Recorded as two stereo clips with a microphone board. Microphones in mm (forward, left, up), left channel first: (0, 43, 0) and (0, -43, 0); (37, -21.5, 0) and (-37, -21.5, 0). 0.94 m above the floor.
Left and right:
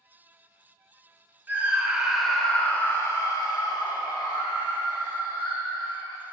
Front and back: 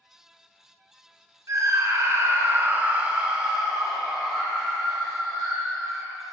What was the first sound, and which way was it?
A scream, 150° right.